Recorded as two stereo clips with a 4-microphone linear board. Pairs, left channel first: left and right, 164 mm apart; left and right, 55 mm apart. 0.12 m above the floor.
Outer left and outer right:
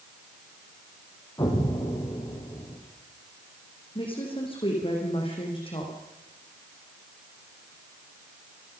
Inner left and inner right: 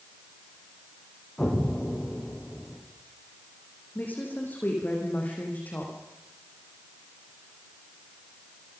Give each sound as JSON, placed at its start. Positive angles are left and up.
{"t": 1.4, "sound": "an explosion", "side_deg": 25, "distance_m": 4.5}
{"t": 4.0, "sound": "a woman speaking", "side_deg": 35, "distance_m": 5.5}